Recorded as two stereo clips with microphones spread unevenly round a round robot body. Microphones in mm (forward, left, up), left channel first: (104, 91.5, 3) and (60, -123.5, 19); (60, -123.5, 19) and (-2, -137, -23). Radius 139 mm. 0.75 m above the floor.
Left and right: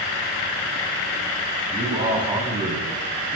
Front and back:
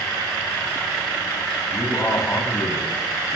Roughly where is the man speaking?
Ahead right.